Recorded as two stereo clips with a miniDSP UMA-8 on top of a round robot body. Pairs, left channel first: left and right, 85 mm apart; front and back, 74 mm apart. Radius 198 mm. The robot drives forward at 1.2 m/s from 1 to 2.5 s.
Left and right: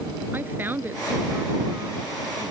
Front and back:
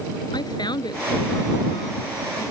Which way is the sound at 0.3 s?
20° right.